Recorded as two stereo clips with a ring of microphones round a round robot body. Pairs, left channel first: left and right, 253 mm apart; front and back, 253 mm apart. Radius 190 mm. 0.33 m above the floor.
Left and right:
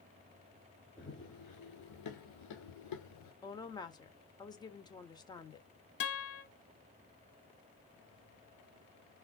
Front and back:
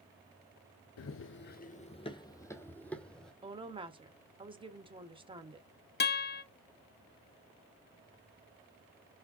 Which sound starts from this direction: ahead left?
A guitar, at 6.0 s.